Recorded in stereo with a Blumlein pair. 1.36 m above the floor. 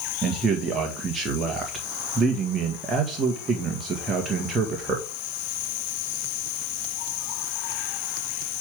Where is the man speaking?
15° right, 1.8 m.